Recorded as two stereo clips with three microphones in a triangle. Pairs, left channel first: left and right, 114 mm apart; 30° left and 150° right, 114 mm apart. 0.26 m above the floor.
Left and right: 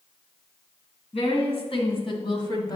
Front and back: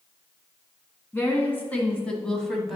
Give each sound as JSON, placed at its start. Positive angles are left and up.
{"t": 1.1, "sound": "a woman speaking", "azimuth_deg": 100, "distance_m": 2.0}